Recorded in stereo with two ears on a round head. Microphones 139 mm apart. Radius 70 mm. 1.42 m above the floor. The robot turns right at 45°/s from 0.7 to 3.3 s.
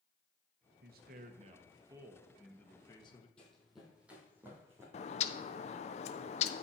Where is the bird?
45° left (ahead or behind), 0.5 m.